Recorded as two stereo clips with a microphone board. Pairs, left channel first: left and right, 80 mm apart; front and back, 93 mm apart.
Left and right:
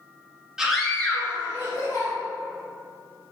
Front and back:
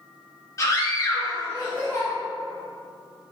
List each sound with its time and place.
0.6 s a scream: 10° right, 1.3 m; by 2.1 s 60° left, 2 m